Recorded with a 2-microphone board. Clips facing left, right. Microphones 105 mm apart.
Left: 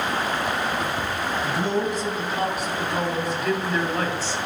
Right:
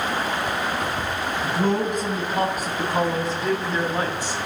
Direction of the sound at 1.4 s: 55° right (ahead or behind).